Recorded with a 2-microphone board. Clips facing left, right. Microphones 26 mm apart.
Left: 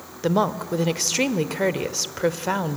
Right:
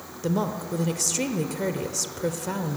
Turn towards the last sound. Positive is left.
turn(degrees=40)  # may be behind; listen again after turning